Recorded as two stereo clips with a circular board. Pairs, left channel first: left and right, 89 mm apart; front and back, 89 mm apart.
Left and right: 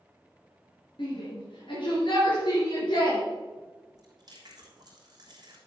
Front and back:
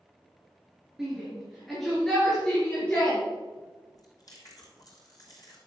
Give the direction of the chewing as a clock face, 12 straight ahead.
2 o'clock.